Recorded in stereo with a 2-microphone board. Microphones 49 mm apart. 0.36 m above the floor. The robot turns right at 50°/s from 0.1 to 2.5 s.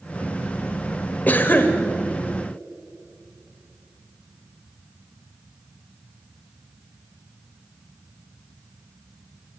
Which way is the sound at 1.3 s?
35° left (ahead or behind).